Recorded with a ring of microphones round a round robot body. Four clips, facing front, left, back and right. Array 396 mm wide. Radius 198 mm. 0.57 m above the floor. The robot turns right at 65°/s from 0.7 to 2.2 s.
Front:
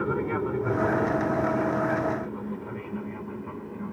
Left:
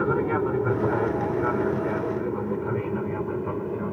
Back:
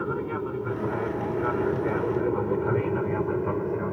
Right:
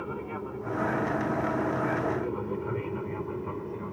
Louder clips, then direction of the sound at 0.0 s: Left 12 dB, front 2 dB; 85° left.